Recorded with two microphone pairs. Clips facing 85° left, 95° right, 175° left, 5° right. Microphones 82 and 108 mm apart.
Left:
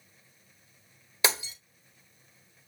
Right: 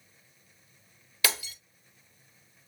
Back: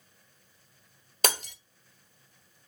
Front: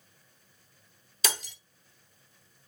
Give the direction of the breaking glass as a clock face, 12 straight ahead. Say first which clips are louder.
Left 2 dB, back 4 dB; 7 o'clock.